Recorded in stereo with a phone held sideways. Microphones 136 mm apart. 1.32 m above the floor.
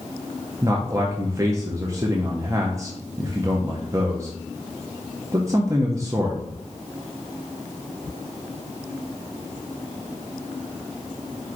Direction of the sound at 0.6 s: 25° right (ahead or behind).